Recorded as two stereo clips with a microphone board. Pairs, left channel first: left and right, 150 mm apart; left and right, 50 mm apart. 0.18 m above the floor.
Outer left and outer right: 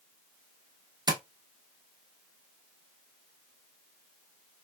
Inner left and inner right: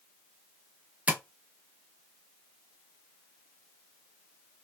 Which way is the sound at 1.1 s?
30° right (ahead or behind).